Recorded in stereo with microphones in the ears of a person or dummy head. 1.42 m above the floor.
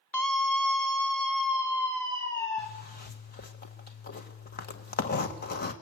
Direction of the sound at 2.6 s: 45° left (ahead or behind).